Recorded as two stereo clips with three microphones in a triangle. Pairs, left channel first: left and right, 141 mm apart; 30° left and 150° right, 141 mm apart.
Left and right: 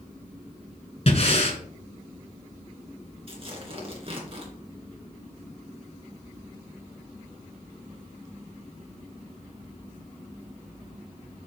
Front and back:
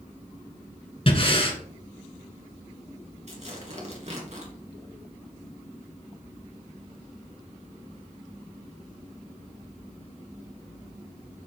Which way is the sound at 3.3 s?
130° right.